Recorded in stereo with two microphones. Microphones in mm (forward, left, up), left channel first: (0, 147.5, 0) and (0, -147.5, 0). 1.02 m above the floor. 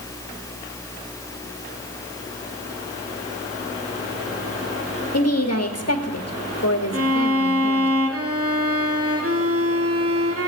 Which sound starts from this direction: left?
A woman speaking, at 5.1 s.